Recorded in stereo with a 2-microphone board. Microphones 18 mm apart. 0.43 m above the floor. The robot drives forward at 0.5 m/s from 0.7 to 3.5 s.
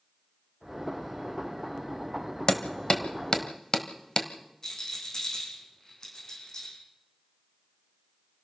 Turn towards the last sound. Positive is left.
turn(degrees=40)  # may be behind; listen again after turning